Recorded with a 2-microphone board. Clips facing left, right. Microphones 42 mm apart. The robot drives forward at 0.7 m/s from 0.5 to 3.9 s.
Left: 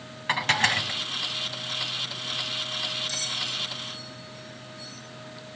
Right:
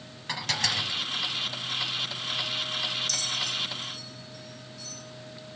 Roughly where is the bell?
Left.